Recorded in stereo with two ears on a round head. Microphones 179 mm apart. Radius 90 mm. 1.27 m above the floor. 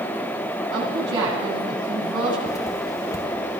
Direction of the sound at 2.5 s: 15° left (ahead or behind).